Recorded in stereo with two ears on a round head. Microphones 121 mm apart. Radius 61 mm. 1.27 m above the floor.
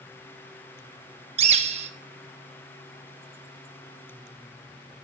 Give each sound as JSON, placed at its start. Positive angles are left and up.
{"t": 1.4, "sound": "a bird", "side_deg": -50, "distance_m": 0.9}